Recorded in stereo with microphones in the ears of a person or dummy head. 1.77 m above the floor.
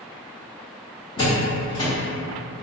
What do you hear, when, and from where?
1.2 s a door slam: 20° left (ahead or behind), 0.6 m